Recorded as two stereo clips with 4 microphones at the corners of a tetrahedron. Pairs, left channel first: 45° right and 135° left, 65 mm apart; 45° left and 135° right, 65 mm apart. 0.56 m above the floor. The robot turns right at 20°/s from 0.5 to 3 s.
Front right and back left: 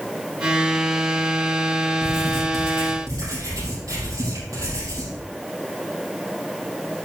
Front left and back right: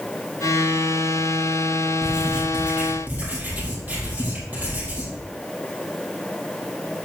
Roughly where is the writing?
Behind left.